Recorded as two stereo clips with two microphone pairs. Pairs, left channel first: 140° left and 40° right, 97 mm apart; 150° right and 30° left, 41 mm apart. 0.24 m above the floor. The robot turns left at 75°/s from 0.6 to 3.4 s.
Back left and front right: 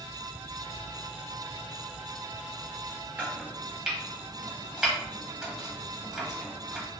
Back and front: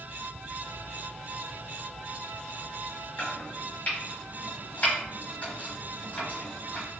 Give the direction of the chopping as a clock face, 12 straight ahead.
4 o'clock.